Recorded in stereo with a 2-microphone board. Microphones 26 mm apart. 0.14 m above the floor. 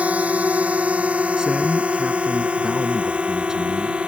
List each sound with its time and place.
0.0 s a drone: 65° right (ahead or behind); by 4.1 s 45° right (ahead or behind)
1.4 s a man speaking: 30° right (ahead or behind)